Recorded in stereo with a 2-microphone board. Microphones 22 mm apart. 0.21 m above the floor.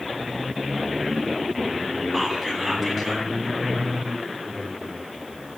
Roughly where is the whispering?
Centre.